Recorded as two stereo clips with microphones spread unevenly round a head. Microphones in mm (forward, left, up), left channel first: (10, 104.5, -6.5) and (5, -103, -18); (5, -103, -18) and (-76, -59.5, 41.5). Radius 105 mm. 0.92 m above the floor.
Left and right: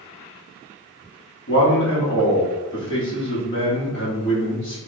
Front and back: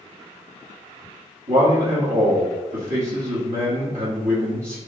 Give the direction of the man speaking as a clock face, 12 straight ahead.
8 o'clock.